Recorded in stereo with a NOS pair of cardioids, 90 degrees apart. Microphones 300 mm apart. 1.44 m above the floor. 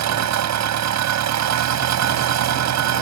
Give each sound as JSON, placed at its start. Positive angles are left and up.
{"t": 0.0, "sound": "an engine running", "azimuth_deg": -70}